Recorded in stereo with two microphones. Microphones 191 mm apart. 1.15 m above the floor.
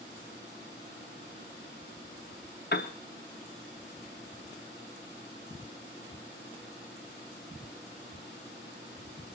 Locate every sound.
2.7 s a piano: 55° left (ahead or behind), 1.1 m